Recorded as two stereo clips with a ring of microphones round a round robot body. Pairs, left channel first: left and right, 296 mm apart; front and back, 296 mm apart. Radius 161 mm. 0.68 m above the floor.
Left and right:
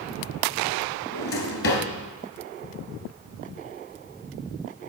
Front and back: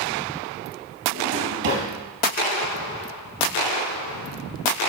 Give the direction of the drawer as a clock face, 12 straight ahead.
7 o'clock.